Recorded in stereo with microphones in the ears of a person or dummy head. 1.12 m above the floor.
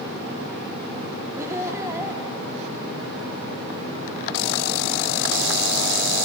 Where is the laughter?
10° right (ahead or behind), 2.5 m.